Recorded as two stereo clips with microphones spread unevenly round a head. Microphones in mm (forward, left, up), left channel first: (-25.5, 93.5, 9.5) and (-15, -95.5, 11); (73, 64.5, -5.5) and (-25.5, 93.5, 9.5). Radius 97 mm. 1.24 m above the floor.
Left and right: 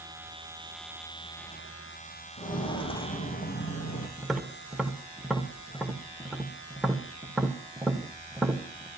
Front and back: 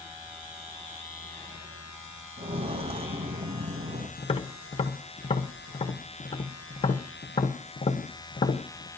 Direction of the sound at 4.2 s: 5° left.